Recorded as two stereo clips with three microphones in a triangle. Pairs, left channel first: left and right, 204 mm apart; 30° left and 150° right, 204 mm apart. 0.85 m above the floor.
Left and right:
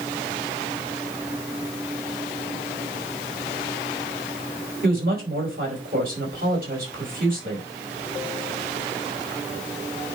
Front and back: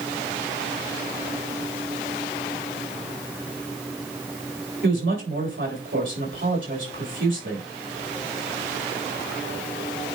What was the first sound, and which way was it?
A woman speaking, 130° right.